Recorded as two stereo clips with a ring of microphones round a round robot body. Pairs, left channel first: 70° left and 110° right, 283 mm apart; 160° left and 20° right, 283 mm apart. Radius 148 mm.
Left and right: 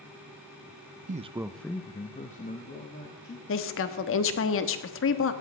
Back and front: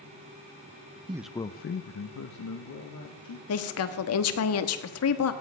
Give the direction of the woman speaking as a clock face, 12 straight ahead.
8 o'clock.